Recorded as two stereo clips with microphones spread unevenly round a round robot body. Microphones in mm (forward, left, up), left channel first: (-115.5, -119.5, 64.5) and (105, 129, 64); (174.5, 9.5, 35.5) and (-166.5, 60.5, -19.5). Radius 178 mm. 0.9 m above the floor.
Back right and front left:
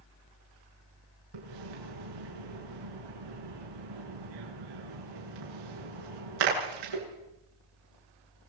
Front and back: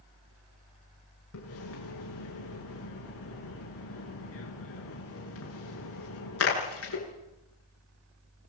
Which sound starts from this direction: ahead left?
A splash, at 1.3 s.